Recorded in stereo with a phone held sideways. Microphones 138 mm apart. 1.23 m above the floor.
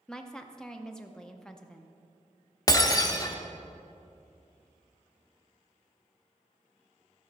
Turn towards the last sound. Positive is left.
turn(degrees=25)  # may be behind; listen again after turning